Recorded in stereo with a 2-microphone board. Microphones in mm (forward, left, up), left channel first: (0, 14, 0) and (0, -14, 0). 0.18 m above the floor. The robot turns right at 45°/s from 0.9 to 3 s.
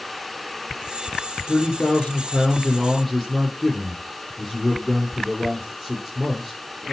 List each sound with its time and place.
1.5 s a man speaking: 110° left, 5.5 m; by 6.9 s 175° left, 5.5 m